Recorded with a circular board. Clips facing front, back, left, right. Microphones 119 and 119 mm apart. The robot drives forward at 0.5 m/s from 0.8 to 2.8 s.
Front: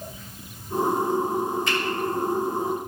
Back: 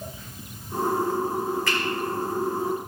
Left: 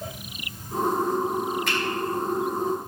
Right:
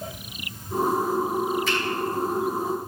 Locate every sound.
1.7 s a finger snap: 70° left, 4.5 m